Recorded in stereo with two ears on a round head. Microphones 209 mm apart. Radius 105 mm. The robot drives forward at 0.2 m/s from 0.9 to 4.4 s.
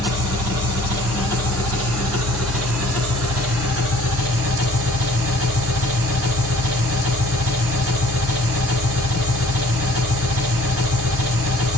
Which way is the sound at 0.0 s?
70° right (ahead or behind).